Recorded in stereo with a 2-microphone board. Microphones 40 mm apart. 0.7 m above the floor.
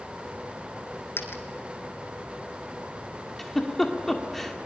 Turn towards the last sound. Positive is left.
turn(degrees=5)  # may be behind; listen again after turning